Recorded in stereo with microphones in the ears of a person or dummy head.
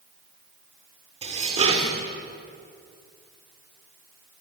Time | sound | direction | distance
1.2 | dishes clattering | 30° right (ahead or behind) | 2.5 m